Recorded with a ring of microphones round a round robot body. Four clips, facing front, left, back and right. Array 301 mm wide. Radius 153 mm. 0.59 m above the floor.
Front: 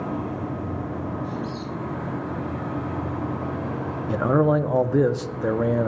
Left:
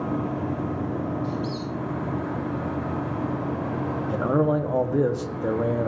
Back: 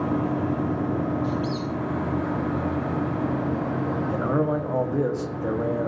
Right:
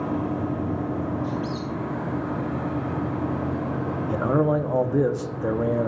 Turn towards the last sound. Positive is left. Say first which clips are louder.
# right 1 dB, front 6 dB
turn(degrees=-5)